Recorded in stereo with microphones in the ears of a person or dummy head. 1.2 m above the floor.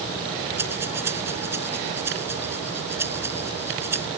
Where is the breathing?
15° right (ahead or behind).